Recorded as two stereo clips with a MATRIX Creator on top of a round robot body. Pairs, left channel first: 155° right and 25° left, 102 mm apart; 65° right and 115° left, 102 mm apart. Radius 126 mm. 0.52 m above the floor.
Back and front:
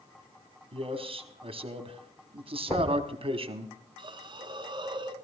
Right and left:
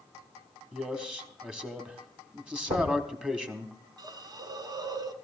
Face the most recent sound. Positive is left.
turn(degrees=65)